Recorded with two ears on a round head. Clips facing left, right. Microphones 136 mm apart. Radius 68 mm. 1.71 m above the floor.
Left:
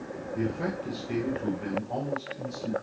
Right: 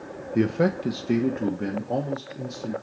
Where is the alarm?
No alarm in this recording.